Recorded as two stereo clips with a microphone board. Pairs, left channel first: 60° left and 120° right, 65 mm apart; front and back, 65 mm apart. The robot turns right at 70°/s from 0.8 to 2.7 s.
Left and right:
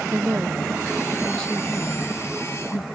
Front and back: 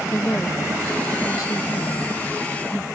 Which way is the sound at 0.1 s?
65° right.